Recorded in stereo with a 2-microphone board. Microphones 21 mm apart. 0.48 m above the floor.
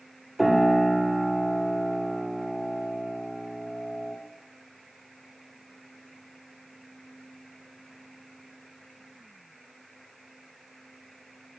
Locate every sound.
0.4 s a piano: centre (ahead or behind), 1.2 m